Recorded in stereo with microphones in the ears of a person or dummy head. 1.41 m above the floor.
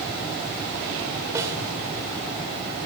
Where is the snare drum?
20° right (ahead or behind), 2.5 m.